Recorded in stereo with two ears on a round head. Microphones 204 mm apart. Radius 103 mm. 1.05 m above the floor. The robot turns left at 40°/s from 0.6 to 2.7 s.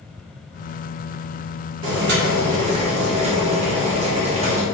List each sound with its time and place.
1.8 s boiling: 110° right, 0.7 m; by 4.6 s 145° right, 0.7 m